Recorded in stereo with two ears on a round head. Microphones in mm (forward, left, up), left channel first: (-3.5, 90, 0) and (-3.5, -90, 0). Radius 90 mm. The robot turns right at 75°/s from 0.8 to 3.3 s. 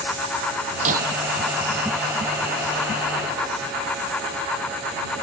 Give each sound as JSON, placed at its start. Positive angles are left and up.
{"t": 0.8, "sound": "breaking glass", "side_deg": -35}